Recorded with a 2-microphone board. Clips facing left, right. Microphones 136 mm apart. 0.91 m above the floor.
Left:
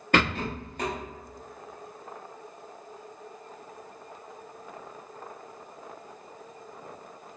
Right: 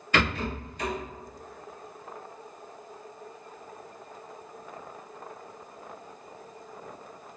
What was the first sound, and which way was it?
A rattle, 55° left (ahead or behind).